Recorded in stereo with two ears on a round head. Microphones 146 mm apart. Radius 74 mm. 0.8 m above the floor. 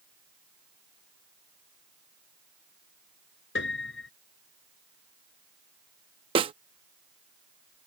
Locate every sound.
3.5 s a piano: 75° left (ahead or behind)
6.3 s a snare drum: 35° right (ahead or behind)